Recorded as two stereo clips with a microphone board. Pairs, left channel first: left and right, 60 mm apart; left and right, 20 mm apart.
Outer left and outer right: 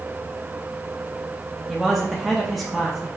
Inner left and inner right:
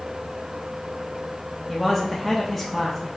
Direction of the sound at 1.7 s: Centre (ahead or behind).